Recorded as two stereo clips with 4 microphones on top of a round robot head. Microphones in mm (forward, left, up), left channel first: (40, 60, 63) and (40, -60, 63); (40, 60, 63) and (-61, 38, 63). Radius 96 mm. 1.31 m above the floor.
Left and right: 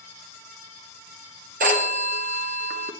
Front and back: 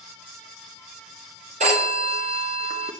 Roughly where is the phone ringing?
Behind right.